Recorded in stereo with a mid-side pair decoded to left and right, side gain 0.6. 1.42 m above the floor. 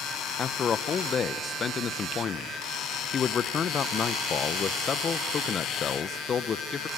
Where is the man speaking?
35° left, 1.1 m.